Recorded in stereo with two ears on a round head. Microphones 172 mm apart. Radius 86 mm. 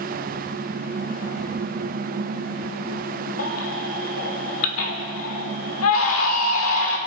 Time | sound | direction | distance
3.4 | a baby crying | 80° left | 1.8 m